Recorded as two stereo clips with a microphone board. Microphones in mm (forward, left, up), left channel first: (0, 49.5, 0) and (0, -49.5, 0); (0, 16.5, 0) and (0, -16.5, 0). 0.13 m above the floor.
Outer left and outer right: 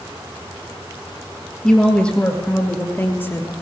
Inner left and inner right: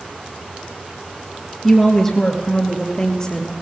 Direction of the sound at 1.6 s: 5° left (ahead or behind).